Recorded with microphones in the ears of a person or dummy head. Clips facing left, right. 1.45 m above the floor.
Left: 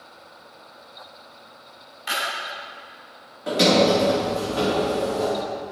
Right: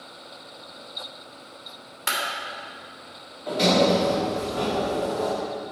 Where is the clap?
60° right (ahead or behind), 2.5 m.